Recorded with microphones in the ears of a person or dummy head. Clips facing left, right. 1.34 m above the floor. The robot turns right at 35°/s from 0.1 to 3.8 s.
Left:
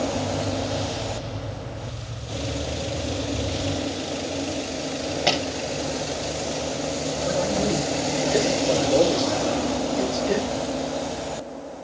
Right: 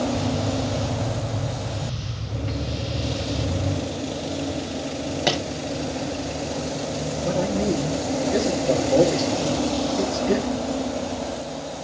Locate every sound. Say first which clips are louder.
5.3 s a pop: even; 25° right (ahead or behind), 4 m
7.2 s a man speaking: right 1 dB; 5° right (ahead or behind), 3 m